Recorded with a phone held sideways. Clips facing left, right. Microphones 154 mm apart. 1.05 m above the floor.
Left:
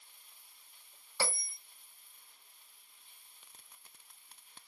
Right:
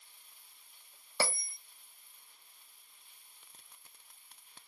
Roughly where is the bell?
Right.